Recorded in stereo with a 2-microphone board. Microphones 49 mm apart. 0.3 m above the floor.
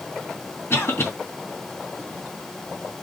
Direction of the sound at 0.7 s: 60° left (ahead or behind).